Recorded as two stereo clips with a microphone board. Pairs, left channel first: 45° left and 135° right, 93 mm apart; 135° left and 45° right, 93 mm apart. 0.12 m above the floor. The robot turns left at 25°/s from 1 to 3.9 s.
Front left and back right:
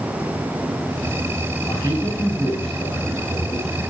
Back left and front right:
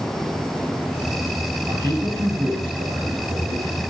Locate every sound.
1.7 s a man speaking: straight ahead, 3.5 m; by 3.9 s 55° right, 3.5 m